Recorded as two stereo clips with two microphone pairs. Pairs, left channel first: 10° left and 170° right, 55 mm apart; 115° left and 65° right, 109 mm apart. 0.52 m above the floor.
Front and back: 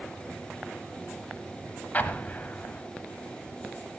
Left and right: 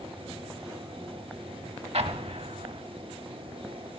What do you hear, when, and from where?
1.9 s an explosion: 50° right, 0.6 m